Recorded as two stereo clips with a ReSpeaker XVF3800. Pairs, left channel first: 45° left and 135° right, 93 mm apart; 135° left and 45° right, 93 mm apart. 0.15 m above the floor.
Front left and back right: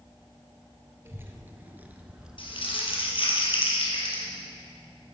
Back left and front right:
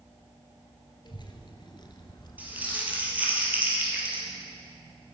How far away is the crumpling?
About 3 m.